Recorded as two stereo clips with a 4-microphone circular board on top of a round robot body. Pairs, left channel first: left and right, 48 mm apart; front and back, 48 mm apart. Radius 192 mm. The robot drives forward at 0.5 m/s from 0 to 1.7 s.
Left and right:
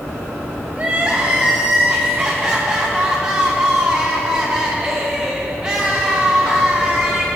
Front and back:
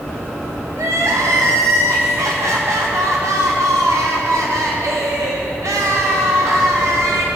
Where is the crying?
155° right, 0.6 m; by 7.3 s 165° right, 1.0 m.